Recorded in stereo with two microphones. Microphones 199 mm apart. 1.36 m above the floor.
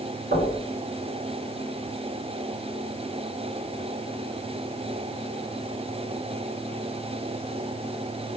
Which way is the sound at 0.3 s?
50° right (ahead or behind).